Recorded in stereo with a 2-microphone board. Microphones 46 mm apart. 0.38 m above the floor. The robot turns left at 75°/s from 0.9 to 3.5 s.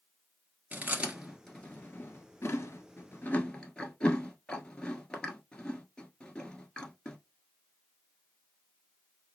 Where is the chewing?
30° right (ahead or behind), 1.3 m; by 7.2 s 15° left (ahead or behind), 1.3 m.